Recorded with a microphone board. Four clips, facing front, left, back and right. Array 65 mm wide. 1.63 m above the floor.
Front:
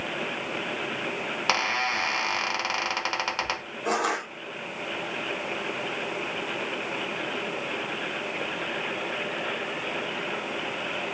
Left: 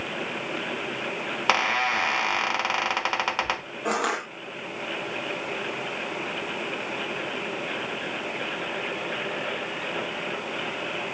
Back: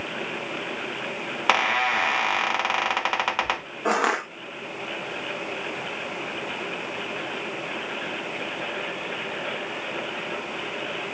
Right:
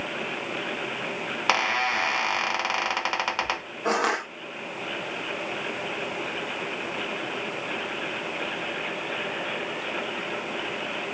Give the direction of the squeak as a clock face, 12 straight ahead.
6 o'clock.